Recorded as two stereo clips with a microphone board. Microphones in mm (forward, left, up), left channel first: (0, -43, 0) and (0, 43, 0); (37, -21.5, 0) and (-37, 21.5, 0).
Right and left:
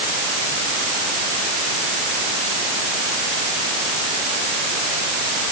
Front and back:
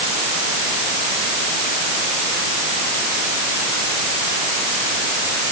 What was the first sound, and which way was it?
Only background noise.